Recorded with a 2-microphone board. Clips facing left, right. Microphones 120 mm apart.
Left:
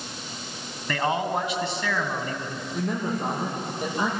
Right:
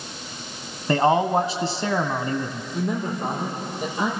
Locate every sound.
0.9 s a man speaking: 35° right (ahead or behind), 1.5 m
2.7 s a man speaking: centre (ahead or behind), 8.5 m